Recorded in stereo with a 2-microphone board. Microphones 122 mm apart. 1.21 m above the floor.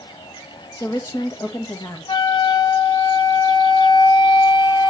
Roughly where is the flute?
Left.